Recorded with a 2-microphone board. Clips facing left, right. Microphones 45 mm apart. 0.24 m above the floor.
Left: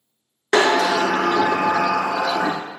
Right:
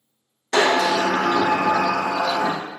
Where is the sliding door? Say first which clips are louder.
Left 1 dB; 85° left, 0.6 m.